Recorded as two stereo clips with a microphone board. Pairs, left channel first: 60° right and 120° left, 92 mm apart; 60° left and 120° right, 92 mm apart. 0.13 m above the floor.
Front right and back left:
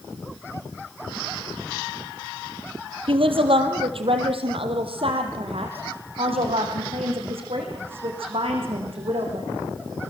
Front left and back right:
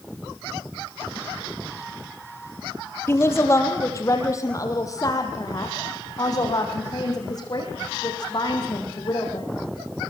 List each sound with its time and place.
3.1 s a woman speaking: 120° left, 2.5 m; by 9.5 s 105° left, 7 m